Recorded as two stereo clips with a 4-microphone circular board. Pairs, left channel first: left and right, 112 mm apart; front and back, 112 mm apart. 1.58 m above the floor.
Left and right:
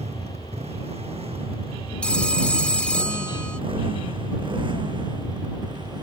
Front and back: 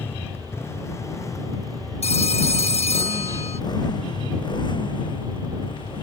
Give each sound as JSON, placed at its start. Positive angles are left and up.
{"t": 0.0, "sound": "a motorcycle", "azimuth_deg": -70}
{"t": 2.0, "sound": "a phone ringing", "azimuth_deg": 10}